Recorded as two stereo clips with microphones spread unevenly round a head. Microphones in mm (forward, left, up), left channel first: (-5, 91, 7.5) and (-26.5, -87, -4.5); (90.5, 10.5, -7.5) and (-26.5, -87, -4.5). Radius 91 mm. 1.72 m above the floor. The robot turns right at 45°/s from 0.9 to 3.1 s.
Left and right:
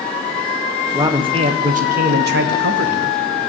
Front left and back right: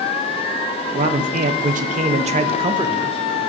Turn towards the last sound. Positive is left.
turn(degrees=-75)